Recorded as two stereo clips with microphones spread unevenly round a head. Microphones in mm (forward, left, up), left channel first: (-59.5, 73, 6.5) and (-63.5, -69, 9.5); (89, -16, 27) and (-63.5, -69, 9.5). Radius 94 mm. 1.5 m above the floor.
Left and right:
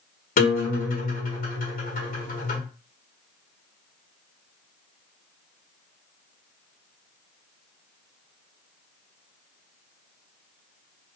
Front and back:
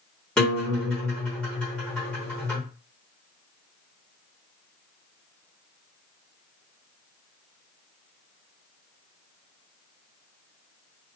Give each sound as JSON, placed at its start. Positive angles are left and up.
{"t": 0.4, "sound": "a guitar", "azimuth_deg": 105, "distance_m": 1.2}